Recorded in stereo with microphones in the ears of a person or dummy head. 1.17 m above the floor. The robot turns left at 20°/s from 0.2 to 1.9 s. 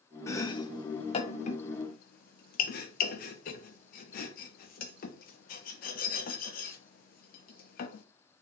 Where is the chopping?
15° left (ahead or behind), 0.6 m; by 8.0 s 50° left (ahead or behind), 0.6 m.